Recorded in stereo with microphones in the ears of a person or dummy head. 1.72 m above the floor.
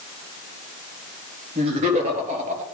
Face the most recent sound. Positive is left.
turn(degrees=-40)  # may be behind; listen again after turning